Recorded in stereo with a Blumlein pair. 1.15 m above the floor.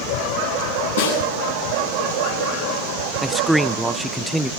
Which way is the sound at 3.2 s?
5° right.